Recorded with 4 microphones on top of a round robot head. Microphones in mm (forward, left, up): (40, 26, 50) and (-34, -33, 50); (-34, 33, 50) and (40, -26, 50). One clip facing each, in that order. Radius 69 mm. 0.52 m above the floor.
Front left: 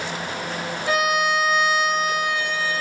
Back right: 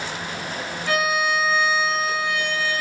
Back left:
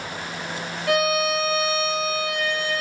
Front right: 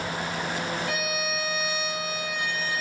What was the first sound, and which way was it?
A violin, 115° left.